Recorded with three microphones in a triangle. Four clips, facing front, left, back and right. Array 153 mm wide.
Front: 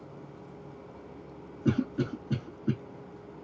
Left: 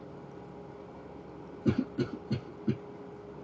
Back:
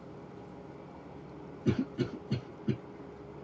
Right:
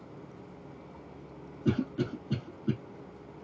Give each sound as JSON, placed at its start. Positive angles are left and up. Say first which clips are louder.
{"t": 1.6, "sound": "a cough", "louder": "even, front 3 dB", "azimuth_deg": 10, "distance_m": 1.2}